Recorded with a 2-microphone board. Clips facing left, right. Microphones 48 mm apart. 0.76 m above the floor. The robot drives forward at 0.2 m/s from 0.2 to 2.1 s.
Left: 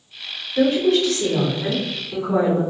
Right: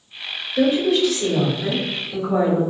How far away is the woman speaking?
About 2.0 m.